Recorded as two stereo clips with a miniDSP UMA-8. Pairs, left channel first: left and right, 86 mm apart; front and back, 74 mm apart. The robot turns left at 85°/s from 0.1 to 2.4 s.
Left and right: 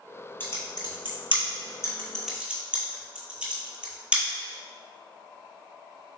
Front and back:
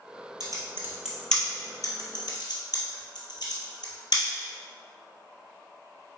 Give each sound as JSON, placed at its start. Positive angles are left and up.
{"t": 0.4, "sound": "typing on a keyboard", "azimuth_deg": 155, "distance_m": 1.0}